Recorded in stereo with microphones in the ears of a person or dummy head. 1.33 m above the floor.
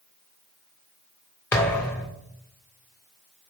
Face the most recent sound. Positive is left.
turn(degrees=10)  # may be behind; listen again after turning